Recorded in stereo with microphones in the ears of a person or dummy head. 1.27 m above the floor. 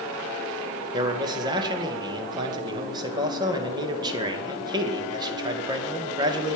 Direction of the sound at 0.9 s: 25° right (ahead or behind).